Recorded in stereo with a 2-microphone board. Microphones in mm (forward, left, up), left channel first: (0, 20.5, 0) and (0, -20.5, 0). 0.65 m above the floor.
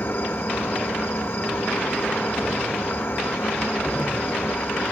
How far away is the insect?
About 2.5 m.